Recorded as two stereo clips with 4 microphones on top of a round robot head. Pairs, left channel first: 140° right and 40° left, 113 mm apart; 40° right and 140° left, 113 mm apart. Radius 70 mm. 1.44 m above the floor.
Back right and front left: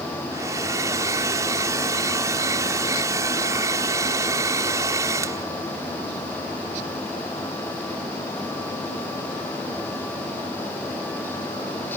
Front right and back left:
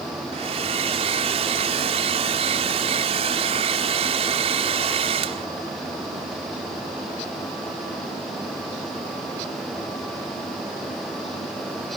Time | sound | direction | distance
0.3 | a hair dryer | 105° left | ?